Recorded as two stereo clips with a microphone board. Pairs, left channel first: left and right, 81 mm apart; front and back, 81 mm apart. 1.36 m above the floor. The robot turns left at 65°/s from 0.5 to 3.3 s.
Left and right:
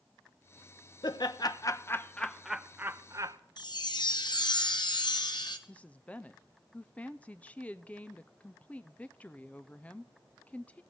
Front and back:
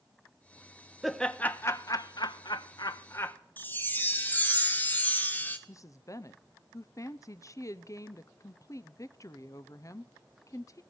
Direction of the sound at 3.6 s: 65° left.